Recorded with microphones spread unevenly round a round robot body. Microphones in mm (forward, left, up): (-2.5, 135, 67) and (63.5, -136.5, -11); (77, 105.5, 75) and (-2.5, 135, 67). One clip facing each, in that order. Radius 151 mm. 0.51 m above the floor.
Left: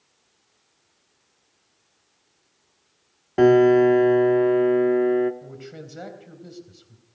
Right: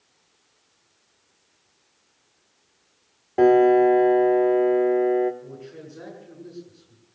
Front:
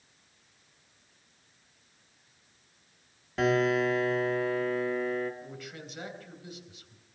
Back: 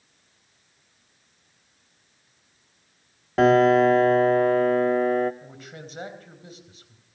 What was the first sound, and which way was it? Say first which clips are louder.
A piano: left 1 dB, back 9 dB; 175° left.